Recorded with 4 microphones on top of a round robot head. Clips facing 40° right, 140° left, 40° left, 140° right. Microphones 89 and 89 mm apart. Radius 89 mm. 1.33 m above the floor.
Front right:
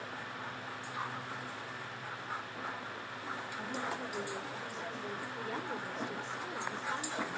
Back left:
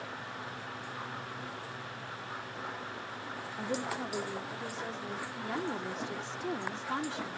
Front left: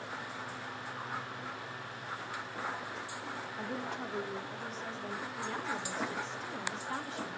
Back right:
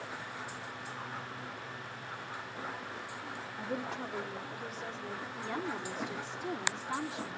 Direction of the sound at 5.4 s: 140° left.